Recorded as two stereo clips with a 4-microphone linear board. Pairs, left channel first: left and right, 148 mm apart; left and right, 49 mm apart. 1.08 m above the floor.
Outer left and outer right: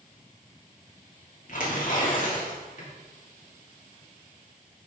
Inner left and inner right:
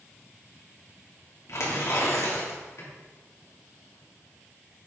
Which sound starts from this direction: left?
Tearing paper, at 1.5 s.